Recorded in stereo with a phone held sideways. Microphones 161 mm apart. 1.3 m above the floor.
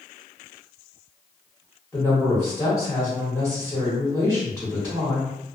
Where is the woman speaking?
20° left (ahead or behind), 1.2 m.